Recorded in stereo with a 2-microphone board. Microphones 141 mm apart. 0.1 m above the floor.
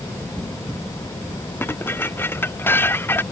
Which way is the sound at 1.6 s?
15° left (ahead or behind).